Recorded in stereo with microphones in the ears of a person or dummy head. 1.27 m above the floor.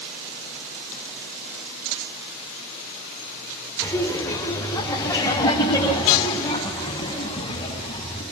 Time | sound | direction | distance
3.8 | laughter | 15° left (ahead or behind) | 4.5 m